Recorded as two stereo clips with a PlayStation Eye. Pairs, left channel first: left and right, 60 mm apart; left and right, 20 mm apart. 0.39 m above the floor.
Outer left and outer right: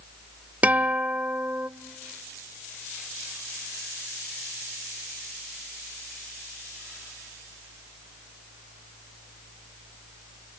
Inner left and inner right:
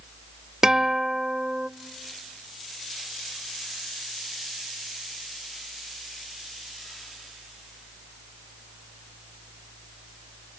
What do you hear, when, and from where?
0.6 s a guitar: 25° right (ahead or behind), 0.8 m